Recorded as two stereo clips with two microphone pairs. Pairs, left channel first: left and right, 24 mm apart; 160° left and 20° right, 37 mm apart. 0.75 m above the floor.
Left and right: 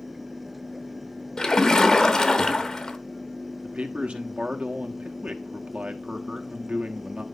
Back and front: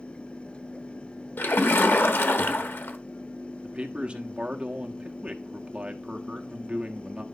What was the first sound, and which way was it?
A splash, 155° left.